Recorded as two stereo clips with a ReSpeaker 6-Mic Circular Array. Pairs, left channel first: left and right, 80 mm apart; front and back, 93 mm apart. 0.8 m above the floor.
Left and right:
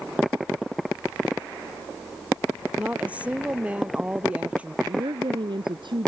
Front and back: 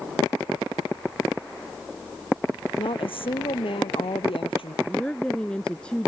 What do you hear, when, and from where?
2.8 s a woman speaking: 15° right
4.8 s a woman speaking: 80° right